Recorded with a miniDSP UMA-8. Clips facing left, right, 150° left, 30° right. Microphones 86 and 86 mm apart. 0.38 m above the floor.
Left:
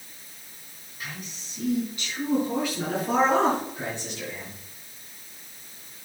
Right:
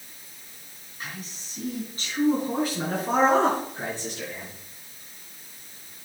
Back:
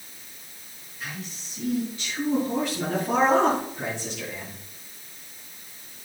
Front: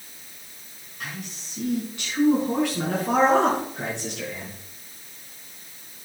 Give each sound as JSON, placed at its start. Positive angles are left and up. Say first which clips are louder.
{"t": 1.0, "sound": "a man speaking", "louder": "even, front 1 dB", "azimuth_deg": -40, "distance_m": 3.0}